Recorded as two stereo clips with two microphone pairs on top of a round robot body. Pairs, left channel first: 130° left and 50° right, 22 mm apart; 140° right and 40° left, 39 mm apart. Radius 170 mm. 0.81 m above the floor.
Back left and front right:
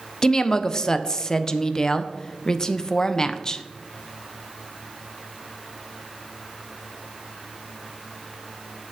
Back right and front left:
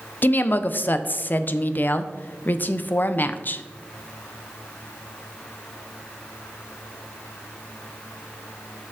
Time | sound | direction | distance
0.2 | a woman speaking | 170° right | 0.6 m